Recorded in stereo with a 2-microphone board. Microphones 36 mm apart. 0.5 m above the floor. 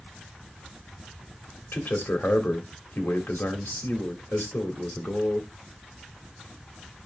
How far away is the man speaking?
About 2.0 m.